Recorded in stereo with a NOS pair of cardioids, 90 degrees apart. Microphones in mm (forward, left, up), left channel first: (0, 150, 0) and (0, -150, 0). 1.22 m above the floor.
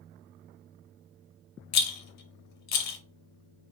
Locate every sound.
1.7 s a rattle: 60° left, 0.8 m